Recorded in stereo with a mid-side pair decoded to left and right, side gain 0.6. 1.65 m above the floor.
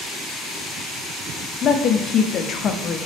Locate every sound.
1.6 s a woman speaking: 45° left, 0.6 m